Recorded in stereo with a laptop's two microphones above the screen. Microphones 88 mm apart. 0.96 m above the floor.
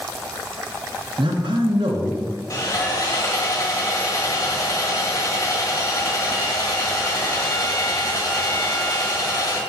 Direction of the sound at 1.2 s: 70° right (ahead or behind).